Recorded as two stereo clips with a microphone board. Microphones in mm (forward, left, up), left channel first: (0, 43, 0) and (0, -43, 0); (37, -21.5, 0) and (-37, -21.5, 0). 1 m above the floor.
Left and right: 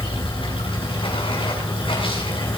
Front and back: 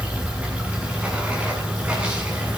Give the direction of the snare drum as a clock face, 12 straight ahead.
No snare drum in this recording.